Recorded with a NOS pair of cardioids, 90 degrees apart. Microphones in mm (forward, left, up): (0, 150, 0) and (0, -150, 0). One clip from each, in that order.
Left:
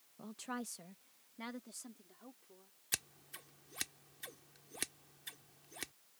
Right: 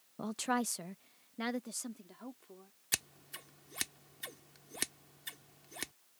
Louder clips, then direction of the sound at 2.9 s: Right 4 dB; 20° right.